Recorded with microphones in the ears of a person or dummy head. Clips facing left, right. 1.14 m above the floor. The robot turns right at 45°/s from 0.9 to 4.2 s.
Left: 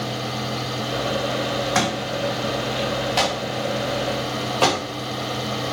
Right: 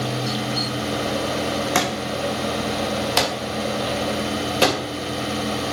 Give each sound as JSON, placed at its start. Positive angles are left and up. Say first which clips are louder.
{"t": 1.8, "sound": "a thud", "louder": "even", "side_deg": -45, "distance_m": 2.0}